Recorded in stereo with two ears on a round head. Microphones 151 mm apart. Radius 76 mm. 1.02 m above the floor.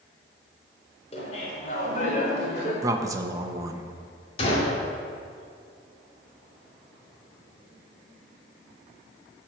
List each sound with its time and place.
1.1 s laughter: 35° left (ahead or behind), 4 m; by 2.7 s 45° left (ahead or behind), 4.5 m
2.8 s a man speaking: 20° right (ahead or behind), 1.1 m
4.4 s a gunshot: 35° left (ahead or behind), 2.5 m